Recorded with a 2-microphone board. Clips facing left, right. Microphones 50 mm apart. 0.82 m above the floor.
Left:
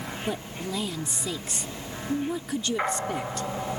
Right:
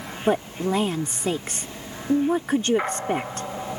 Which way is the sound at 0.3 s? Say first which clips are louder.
Right 12 dB; 45° right (ahead or behind).